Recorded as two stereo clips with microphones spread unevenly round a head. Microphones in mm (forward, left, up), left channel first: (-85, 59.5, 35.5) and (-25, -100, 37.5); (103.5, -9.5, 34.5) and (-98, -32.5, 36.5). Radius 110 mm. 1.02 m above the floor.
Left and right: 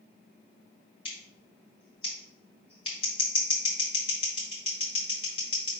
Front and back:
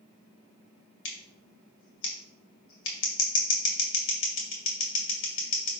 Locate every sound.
1.1 s scissors: 45° left, 1.8 m